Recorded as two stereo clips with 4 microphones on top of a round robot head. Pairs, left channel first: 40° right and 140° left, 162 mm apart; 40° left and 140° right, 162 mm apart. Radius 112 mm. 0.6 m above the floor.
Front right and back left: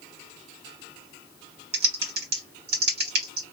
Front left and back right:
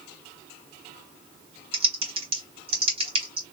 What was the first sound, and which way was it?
Typing on a keyboard, 160° left.